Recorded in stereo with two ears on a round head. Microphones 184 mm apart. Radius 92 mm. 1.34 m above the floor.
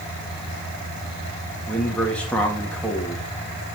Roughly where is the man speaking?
Centre.